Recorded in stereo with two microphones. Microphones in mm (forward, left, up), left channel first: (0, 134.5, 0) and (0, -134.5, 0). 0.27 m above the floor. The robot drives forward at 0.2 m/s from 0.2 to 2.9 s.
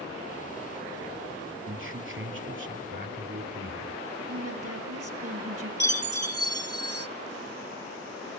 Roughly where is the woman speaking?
Right.